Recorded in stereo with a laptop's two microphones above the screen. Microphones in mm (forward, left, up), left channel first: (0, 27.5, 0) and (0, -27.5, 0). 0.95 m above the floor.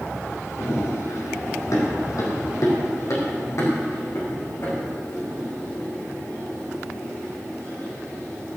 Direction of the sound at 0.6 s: 60° left (ahead or behind).